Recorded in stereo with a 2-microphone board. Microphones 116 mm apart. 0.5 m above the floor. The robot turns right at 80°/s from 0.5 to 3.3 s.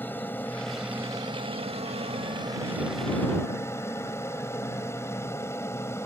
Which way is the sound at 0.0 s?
160° left.